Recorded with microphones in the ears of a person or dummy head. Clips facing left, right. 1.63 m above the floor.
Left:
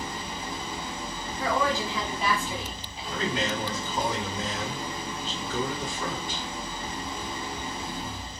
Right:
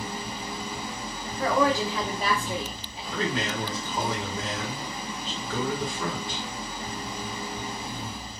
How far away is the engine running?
About 2 m.